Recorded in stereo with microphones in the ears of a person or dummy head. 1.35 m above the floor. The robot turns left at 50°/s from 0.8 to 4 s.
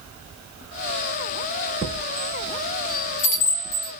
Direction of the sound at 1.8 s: Centre (ahead or behind).